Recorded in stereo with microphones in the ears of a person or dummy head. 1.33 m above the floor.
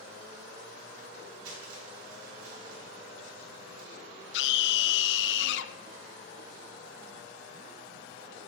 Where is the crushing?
25° right (ahead or behind), 6 m.